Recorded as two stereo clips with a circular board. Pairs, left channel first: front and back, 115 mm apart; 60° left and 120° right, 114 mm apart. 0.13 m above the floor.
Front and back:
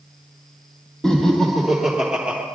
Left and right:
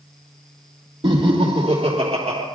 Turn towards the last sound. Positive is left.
turn(degrees=-105)